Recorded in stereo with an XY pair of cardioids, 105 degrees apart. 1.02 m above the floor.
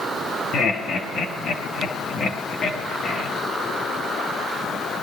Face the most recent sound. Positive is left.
turn(degrees=55)